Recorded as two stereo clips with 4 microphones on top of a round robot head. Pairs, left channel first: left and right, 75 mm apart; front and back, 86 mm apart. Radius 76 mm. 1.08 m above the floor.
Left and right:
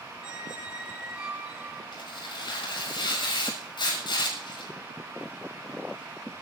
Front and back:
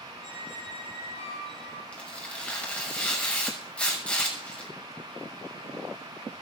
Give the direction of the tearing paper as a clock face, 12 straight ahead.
9 o'clock.